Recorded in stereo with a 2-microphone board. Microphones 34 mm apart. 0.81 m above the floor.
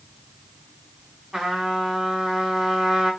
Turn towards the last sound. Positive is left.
turn(degrees=-5)  # may be behind; listen again after turning